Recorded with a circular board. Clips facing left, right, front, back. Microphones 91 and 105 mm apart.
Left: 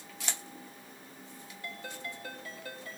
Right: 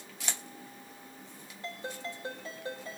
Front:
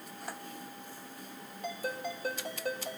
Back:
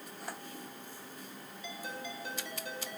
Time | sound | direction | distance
1.6 | a ringtone | 25° right | 5.5 m